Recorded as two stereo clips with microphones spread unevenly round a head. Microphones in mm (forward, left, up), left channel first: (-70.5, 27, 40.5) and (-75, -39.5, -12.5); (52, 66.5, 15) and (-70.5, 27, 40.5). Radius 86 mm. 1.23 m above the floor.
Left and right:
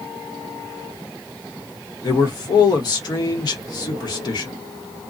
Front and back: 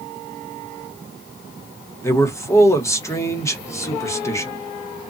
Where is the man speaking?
90° left, 1.2 m.